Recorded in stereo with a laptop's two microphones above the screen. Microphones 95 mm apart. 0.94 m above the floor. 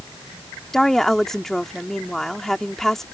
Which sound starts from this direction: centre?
A woman speaking, at 0.7 s.